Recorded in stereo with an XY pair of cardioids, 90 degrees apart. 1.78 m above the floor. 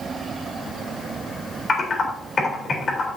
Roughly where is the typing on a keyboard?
Ahead left.